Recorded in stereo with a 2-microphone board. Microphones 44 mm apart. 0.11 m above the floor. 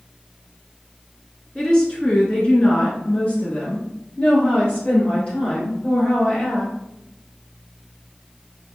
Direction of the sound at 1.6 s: 15° left (ahead or behind).